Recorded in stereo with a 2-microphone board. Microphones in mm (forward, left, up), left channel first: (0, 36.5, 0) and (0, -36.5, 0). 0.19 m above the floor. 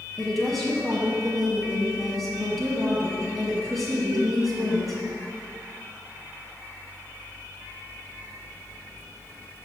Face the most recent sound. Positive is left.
turn(degrees=0)  # may be behind; listen again after turning